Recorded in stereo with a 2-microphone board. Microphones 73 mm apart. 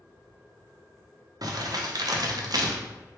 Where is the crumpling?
60° right (ahead or behind), 0.6 m.